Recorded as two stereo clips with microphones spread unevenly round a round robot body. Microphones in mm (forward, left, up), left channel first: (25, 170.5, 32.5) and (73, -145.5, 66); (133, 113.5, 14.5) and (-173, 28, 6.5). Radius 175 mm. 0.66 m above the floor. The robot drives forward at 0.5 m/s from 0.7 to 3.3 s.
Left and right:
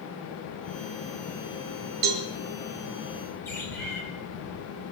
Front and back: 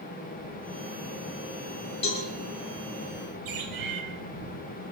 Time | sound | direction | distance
2.0 | a cowbell | 60° right | 3 m
3.5 | a bird | straight behind | 3.5 m